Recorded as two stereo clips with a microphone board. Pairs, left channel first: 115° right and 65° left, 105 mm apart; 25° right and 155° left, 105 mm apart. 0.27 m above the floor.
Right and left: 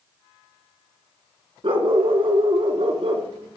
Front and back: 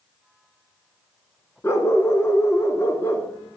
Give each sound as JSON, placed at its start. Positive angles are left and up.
{"t": 1.6, "sound": "a dog barking", "azimuth_deg": 40, "distance_m": 1.4}